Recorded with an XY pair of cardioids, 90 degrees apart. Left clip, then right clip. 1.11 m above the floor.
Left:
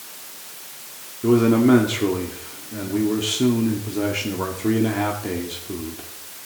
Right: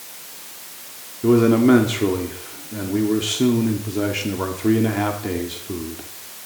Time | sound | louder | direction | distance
1.2 | a man speaking | right 2 dB | 15° right | 2 m